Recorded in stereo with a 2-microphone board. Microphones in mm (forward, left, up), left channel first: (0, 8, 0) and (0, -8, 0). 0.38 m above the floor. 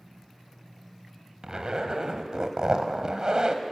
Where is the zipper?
40° right (ahead or behind), 1.6 m.